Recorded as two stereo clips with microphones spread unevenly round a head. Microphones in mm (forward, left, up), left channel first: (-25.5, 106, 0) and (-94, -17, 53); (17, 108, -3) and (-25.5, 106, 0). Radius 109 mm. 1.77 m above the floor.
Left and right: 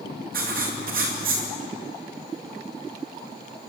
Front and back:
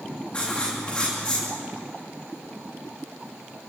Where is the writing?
80° right, 2.5 m.